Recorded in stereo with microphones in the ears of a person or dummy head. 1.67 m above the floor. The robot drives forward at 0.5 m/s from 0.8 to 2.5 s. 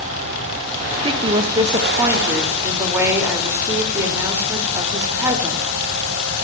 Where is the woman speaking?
35° right (ahead or behind), 0.6 m; by 5.6 s 15° right (ahead or behind), 1.3 m.